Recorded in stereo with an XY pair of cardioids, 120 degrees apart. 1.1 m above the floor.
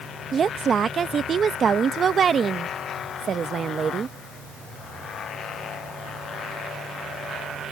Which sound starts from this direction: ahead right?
A woman speaking, at 0.3 s.